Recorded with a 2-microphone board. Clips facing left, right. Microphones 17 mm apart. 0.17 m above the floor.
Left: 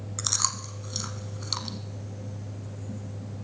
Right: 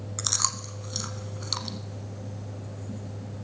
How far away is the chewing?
About 0.7 m.